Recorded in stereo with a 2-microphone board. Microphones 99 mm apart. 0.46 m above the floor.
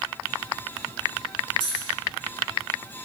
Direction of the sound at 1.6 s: 60° right (ahead or behind).